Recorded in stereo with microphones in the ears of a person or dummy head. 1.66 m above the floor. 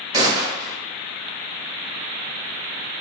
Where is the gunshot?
20° right (ahead or behind), 1.0 m.